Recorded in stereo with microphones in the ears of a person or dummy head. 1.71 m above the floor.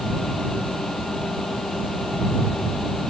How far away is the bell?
No bell in this recording.